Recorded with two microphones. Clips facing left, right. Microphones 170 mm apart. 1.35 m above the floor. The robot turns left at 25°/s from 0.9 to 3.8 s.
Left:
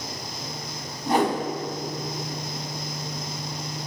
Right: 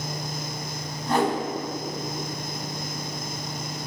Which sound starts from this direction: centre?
A whoosh, at 1.1 s.